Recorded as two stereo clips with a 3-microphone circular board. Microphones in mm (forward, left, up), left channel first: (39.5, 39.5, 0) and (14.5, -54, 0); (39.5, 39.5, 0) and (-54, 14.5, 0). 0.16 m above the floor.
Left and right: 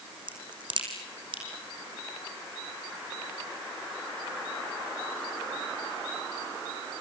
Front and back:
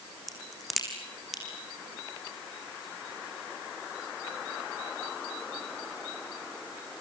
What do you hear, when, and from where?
0.3 s a crack: 75° right, 4.5 m